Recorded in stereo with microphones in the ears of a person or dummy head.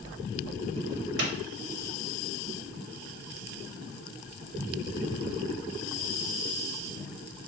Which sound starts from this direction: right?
A clap, at 1.2 s.